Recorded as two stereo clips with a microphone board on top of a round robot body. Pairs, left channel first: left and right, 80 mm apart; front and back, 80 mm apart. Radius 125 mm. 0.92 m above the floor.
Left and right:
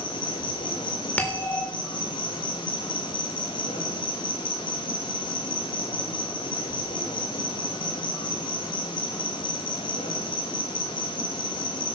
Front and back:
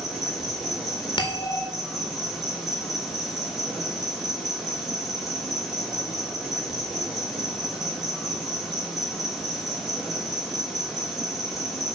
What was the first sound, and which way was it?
An insect, 90° left.